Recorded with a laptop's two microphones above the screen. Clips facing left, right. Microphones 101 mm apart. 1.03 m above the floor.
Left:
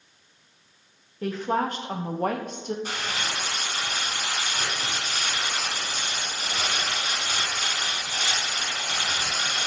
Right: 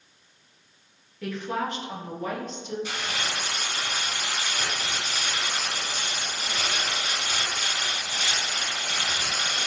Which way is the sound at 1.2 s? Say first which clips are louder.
Left 4 dB; 35° left (ahead or behind).